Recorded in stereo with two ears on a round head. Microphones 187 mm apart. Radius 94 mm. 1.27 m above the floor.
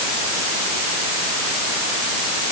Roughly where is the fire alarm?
I don't hear a fire alarm.